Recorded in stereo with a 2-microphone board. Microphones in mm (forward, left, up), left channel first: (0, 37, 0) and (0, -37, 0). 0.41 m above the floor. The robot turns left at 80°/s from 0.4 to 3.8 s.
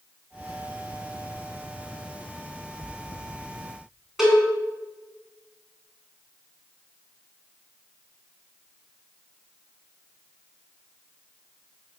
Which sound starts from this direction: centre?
A cowbell, at 4.2 s.